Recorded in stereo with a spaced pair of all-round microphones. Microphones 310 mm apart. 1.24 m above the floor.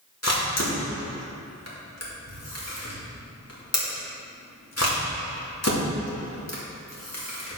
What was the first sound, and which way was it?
A camera shutter, 55° left (ahead or behind).